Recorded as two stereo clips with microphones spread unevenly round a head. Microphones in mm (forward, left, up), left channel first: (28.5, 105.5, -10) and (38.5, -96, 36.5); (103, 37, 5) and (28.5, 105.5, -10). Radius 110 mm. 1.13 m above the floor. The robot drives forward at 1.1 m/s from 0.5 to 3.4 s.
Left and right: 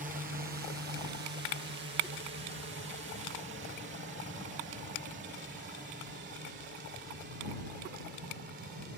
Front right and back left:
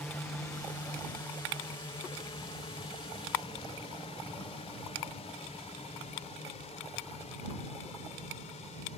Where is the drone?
110° right; by 9.0 s 45° right.